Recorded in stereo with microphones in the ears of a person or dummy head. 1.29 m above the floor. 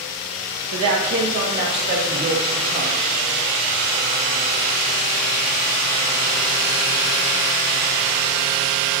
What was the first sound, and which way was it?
A man speaking, 75° right (ahead or behind).